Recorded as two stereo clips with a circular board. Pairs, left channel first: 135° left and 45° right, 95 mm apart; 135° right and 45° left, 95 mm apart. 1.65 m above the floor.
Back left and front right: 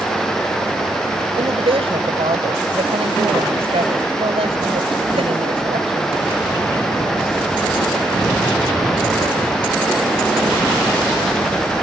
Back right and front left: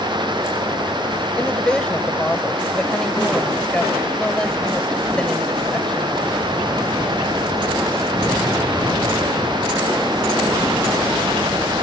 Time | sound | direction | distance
1.4 | a woman speaking | 55° right | ?